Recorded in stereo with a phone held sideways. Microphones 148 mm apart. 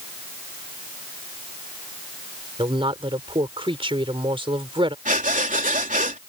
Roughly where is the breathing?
Right.